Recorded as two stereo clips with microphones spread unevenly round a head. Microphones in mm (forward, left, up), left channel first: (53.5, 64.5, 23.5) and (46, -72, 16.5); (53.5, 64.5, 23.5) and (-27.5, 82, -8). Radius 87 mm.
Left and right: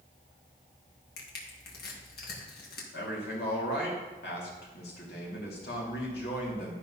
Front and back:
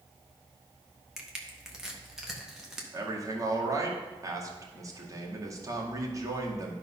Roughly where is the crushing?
Left.